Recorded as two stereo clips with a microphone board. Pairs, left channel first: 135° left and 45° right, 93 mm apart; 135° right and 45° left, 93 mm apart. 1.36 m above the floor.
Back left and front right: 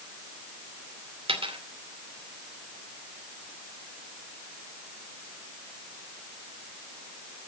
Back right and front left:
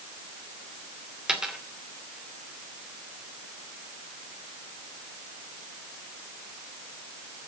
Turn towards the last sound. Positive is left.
turn(degrees=-35)